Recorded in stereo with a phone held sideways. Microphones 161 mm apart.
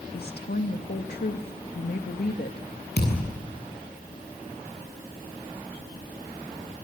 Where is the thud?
85° left, 8 m.